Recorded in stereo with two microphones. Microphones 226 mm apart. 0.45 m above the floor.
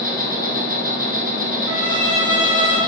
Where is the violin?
65° right (ahead or behind), 1.1 m.